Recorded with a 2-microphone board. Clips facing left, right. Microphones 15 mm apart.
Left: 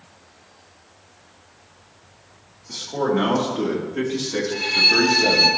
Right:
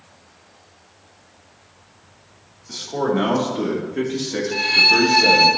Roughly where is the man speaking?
Centre.